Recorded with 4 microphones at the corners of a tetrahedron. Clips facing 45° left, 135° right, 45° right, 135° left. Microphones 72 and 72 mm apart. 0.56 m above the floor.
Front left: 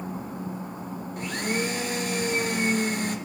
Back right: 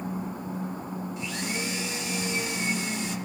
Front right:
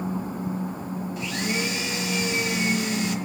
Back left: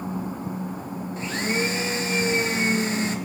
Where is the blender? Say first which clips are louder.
Front left 8 dB, back left 4 dB; 80° left, 1.0 m.